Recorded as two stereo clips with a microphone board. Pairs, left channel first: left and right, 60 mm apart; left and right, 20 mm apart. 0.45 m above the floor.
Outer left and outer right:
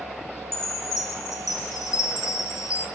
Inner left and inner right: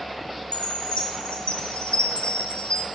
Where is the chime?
80° left, 1.3 m.